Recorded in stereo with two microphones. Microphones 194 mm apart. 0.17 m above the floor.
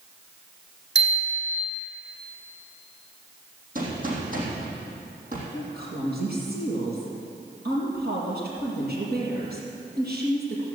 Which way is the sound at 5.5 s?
55° right (ahead or behind).